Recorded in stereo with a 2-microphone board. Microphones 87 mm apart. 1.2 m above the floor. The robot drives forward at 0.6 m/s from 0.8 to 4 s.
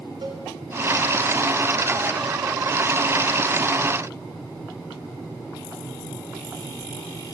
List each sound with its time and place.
0.2 s a cowbell: 85° right, 3 m